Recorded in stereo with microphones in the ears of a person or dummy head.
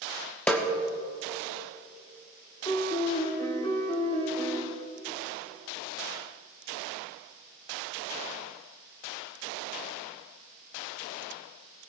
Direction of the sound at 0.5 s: 5° left (ahead or behind).